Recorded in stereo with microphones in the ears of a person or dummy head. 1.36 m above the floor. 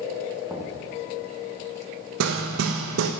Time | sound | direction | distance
0.5 | knocking | 10° right (ahead or behind) | 1.5 m
2.2 | hammering | 80° right | 1.0 m